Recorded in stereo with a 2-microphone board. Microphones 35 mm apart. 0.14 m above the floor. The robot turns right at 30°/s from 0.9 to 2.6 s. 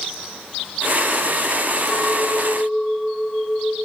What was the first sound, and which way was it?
A clink, 15° left (ahead or behind).